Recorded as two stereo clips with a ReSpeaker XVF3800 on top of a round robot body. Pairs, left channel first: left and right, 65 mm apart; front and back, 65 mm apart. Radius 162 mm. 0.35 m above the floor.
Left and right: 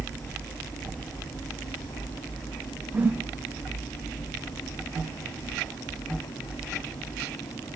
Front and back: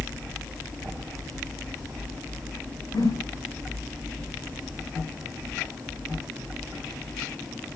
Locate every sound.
2.9 s a whoosh: 25° right, 4 m